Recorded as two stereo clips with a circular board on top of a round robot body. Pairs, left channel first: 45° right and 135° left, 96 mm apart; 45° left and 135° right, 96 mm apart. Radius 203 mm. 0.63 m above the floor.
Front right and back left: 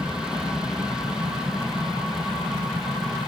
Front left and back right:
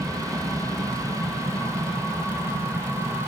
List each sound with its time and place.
0.0 s an aircraft: 150° right; by 3.3 s 140° right